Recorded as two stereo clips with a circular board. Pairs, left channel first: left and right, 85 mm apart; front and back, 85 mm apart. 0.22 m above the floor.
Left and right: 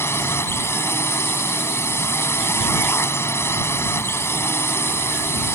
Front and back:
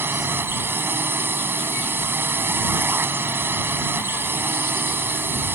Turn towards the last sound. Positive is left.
turn(degrees=130)